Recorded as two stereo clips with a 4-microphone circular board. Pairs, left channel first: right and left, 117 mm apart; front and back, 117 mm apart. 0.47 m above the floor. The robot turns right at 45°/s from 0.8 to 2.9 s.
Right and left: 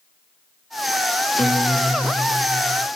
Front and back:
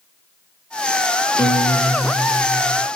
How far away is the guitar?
About 0.6 m.